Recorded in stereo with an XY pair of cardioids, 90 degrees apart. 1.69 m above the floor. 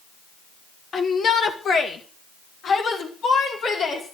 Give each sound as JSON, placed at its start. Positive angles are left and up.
{"t": 0.9, "sound": "a shout", "azimuth_deg": 55, "distance_m": 1.5}